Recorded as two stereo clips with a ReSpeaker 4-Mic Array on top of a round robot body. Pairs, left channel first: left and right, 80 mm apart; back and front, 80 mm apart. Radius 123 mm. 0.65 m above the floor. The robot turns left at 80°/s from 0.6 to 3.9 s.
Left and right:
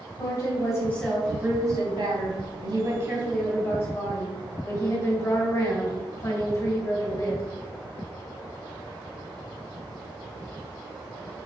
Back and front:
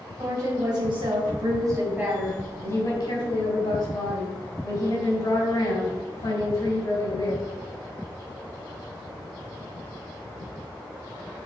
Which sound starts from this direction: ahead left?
A woman speaking, at 0.2 s.